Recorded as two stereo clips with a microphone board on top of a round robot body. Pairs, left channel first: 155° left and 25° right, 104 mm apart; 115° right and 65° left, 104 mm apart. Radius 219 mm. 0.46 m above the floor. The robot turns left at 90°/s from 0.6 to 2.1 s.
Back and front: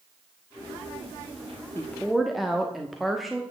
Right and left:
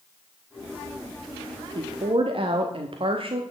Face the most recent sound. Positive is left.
turn(degrees=65)